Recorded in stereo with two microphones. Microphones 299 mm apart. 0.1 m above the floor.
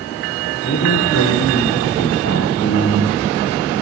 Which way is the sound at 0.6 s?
40° left (ahead or behind).